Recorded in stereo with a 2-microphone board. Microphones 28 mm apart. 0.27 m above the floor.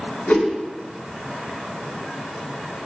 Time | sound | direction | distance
0.3 | a whoosh | 65° left (ahead or behind) | 1.1 m